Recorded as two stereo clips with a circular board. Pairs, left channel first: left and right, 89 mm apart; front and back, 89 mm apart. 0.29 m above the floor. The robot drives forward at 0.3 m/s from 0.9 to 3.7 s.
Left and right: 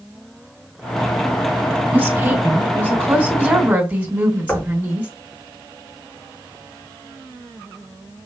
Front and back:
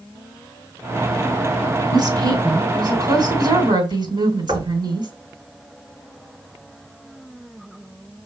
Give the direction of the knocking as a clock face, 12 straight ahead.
7 o'clock.